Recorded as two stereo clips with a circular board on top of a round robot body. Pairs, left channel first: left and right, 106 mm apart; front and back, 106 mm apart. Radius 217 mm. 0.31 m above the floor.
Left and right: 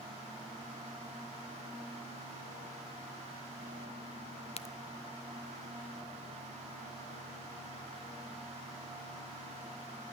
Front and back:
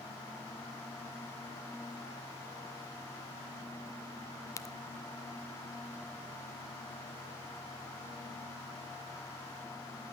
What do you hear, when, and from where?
4.6 s a crack: 60° left, 0.6 m